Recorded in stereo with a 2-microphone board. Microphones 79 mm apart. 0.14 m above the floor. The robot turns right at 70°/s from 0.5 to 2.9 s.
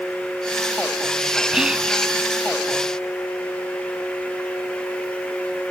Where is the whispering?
5° right (ahead or behind); by 1.9 s 15° right (ahead or behind).